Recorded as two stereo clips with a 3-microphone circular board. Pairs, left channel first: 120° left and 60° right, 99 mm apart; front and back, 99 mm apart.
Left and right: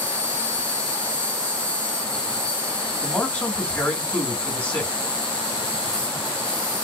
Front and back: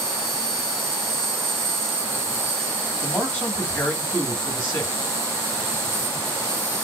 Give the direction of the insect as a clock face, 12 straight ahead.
6 o'clock.